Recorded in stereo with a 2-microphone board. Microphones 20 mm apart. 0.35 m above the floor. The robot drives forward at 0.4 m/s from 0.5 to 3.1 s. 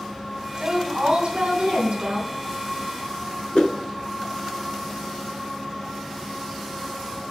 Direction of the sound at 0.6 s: 55° right (ahead or behind).